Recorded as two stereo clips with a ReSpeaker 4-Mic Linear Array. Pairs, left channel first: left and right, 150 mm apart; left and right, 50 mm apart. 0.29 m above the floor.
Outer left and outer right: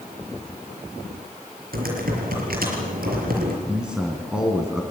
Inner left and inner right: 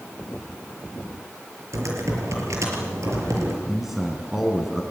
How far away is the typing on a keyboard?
About 5.5 m.